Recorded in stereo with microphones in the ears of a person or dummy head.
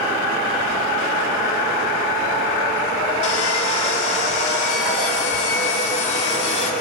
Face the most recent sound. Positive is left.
turn(degrees=50)  # may be behind; listen again after turning